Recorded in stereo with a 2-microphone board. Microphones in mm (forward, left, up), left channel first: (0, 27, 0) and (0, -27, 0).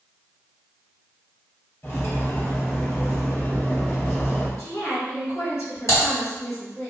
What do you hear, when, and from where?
1.8 s cutlery clinking: 50° left (ahead or behind), 0.9 m
4.6 s a woman speaking: 50° left (ahead or behind), 1.6 m
5.9 s typing on a keyboard: 60° left (ahead or behind), 1.8 m